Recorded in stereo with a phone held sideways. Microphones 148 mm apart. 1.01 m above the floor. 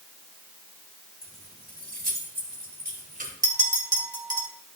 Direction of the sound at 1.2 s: 70° right (ahead or behind).